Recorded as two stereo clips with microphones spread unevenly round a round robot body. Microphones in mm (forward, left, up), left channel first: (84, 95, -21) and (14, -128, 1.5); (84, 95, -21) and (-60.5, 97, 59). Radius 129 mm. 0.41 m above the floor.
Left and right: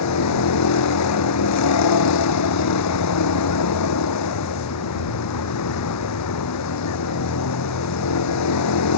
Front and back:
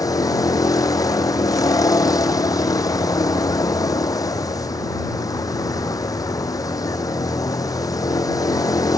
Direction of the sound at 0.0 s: 65° left.